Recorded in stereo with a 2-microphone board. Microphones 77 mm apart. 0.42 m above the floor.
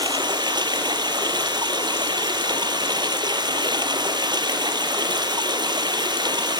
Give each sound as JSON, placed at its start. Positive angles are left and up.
{"t": 0.0, "sound": "running water", "side_deg": -70, "distance_m": 0.9}